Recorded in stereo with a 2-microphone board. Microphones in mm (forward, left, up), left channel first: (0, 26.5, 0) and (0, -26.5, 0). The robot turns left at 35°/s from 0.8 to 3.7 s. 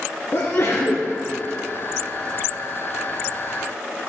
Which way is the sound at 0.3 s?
50° left (ahead or behind).